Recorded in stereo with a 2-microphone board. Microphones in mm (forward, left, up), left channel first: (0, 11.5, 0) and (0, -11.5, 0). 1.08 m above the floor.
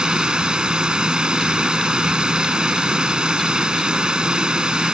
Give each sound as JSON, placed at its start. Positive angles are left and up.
{"t": 0.0, "sound": "running water", "side_deg": -40}